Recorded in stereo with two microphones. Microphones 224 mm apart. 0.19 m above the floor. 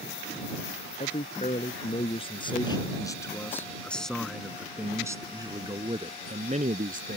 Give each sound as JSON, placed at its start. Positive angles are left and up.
{"t": 1.0, "sound": "a man speaking", "side_deg": 35}